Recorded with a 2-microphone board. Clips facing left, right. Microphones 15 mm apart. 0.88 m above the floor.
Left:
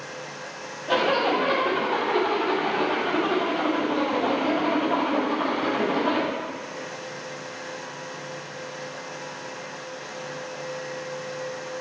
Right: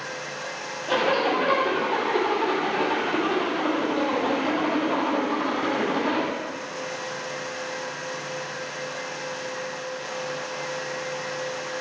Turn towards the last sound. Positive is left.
turn(degrees=-10)  # may be behind; listen again after turning